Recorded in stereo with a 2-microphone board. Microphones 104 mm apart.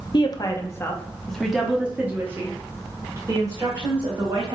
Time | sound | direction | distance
0.1 | a woman speaking | 50° left (ahead or behind) | 0.8 m